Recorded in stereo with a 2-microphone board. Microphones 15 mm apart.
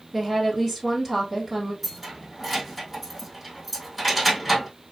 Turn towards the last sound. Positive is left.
turn(degrees=-10)  # may be behind; listen again after turning